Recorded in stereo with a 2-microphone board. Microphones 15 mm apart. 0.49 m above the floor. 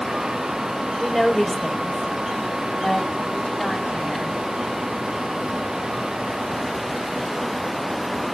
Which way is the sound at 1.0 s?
10° left (ahead or behind).